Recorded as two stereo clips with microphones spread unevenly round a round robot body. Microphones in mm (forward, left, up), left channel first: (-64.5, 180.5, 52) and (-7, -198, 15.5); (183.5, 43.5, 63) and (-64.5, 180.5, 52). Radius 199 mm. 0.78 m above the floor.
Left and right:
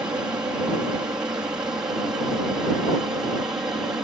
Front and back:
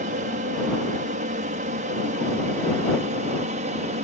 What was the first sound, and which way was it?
An aircraft, 160° right.